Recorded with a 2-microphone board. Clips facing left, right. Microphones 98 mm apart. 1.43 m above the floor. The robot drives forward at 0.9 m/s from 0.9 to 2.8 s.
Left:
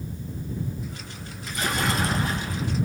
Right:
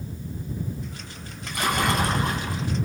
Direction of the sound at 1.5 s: 65° right (ahead or behind).